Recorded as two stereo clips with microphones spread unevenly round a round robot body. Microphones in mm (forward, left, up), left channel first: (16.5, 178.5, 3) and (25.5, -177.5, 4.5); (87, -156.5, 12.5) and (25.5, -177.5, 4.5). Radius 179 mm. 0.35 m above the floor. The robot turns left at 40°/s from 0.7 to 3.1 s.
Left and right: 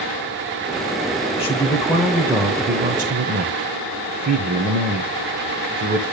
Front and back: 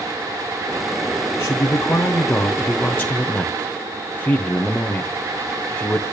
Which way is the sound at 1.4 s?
30° left.